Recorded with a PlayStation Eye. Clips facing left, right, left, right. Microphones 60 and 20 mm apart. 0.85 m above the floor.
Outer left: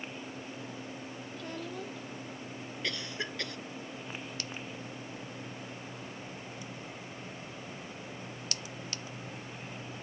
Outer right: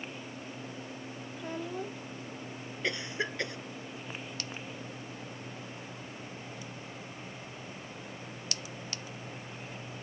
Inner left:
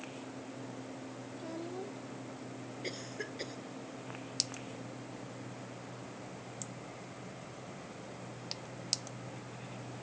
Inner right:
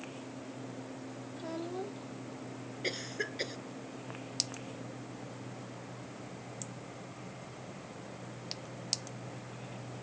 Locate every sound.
1.4 s a child speaking: 15° right (ahead or behind)
2.8 s a cough: 25° right (ahead or behind)